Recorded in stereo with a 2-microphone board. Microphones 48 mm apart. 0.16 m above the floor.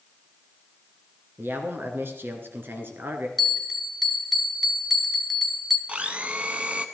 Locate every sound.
1.4 s a man speaking: 50° right (ahead or behind), 1.8 m
3.4 s a bell: centre (ahead or behind), 1.1 m
5.9 s a blender: 30° right (ahead or behind), 0.8 m